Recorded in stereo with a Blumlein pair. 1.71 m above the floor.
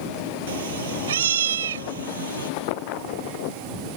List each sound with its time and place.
0.5 s a cat meowing: 60° right; by 2.5 s 65° right